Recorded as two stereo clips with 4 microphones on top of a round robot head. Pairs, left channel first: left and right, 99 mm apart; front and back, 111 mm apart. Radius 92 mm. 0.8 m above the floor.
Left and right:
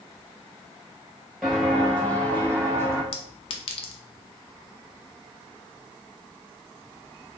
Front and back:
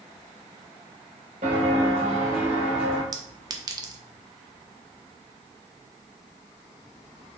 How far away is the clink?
About 0.7 m.